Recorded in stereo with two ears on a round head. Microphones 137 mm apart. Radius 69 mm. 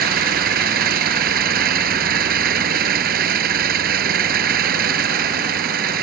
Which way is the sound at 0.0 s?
70° right (ahead or behind).